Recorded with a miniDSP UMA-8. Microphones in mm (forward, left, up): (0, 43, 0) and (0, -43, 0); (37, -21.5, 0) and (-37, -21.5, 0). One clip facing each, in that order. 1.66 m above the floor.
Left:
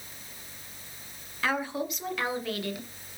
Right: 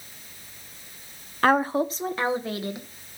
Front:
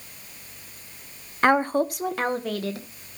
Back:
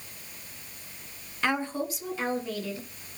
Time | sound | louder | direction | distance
1.4 | a woman speaking | right 9 dB, front 9 dB | 50° right | 0.9 m